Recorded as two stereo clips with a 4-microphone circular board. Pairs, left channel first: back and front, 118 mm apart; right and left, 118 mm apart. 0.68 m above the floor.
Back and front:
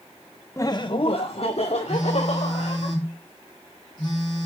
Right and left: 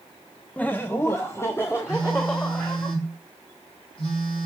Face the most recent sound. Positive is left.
turn(degrees=-130)